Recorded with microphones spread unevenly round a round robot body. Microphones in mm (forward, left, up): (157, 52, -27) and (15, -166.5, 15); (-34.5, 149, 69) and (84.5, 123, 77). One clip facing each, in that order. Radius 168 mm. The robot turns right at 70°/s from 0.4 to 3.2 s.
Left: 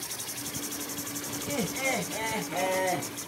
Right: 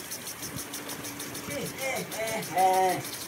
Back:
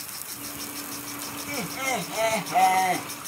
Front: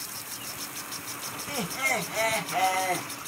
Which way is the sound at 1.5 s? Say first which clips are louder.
Left 3 dB, back 1 dB; 55° left.